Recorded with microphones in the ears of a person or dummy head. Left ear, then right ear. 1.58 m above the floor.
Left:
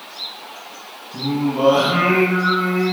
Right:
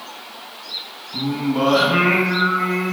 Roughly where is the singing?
Centre.